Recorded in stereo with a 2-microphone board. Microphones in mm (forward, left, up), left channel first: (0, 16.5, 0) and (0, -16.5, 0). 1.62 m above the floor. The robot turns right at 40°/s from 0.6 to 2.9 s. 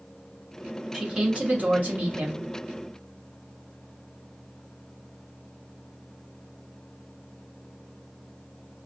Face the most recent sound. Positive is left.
turn(degrees=-80)